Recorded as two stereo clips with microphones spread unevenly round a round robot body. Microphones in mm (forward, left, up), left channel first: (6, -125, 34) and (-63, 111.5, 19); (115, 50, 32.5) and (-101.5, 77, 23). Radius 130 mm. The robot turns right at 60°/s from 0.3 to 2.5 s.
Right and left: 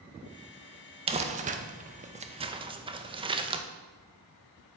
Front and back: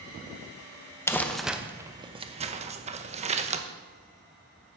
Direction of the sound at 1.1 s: 65° left.